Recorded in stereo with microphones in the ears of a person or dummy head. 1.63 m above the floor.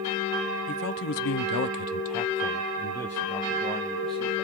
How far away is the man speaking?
About 0.9 m.